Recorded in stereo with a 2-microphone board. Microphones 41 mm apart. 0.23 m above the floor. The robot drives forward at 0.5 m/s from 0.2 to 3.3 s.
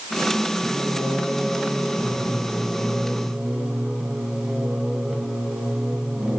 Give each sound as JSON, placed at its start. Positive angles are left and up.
{"t": 0.6, "sound": "singing", "side_deg": -15, "distance_m": 3.0}